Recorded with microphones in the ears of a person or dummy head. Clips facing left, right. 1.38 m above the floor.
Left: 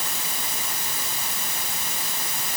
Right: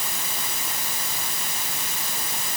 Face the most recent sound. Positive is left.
No sound to turn to.